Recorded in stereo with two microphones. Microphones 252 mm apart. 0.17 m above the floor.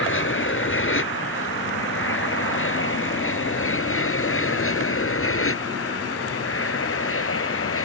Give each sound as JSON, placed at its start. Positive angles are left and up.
{"t": 0.0, "sound": "an aircraft", "side_deg": 50}